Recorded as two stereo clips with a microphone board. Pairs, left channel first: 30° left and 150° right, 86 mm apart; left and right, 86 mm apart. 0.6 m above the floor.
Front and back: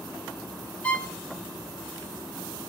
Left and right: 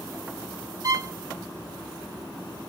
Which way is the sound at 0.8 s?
45° right.